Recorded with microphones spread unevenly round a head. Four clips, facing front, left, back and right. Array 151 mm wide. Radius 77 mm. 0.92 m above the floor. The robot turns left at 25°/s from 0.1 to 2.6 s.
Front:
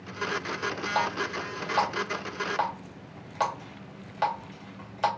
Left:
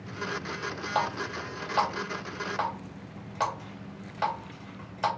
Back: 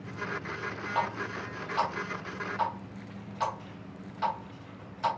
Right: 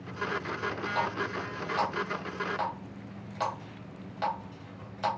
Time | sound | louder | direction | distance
0.9 | a running tap | left 4 dB, front 2 dB | 55° left | 2 m